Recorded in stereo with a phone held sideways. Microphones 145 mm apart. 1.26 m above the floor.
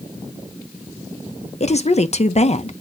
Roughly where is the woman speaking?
Left.